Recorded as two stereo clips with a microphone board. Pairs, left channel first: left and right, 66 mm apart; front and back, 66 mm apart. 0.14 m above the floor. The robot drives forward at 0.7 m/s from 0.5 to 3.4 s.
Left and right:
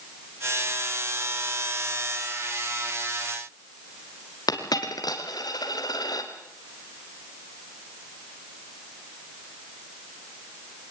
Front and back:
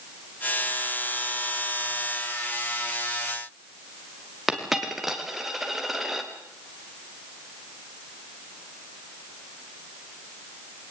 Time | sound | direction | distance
4.5 | a dropped coin | 95° left | 3.5 m